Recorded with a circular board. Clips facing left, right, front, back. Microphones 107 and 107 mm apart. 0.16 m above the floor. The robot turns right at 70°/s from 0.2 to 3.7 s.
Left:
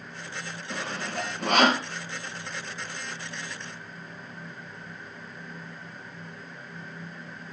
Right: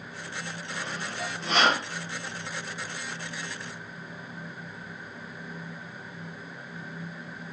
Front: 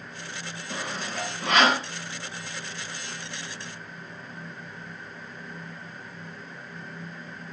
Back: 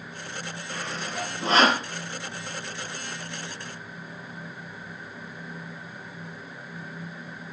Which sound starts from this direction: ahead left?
Sawing, at 0.7 s.